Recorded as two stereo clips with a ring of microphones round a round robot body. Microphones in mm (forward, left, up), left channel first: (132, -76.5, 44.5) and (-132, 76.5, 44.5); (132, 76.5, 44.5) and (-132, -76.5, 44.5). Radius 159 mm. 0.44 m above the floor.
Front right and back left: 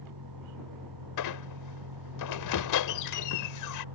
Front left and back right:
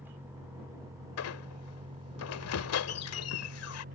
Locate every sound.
0.0 s a vehicle: 125° left; by 4.0 s 145° left
1.2 s a squeak: 10° right